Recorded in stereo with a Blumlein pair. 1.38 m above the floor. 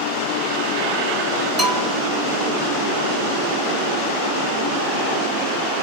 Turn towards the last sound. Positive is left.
turn(degrees=-5)